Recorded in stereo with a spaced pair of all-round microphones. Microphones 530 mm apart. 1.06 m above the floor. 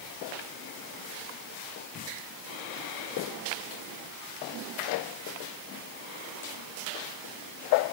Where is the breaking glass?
No breaking glass in this recording.